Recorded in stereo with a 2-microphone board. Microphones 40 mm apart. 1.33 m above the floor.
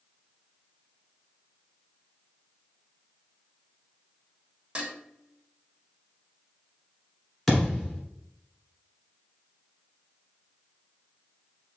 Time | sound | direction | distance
4.8 | dishes clattering | 30° right (ahead or behind) | 1.4 m
7.5 | a thud | 5° left (ahead or behind) | 1.5 m